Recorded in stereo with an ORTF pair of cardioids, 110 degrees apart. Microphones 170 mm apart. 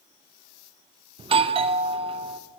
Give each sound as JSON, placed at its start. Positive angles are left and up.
{"t": 1.2, "sound": "a doorbell", "azimuth_deg": -35, "distance_m": 0.7}